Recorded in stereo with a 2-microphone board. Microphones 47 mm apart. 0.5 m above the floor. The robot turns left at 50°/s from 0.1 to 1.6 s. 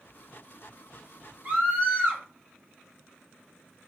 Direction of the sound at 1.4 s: 45° right (ahead or behind).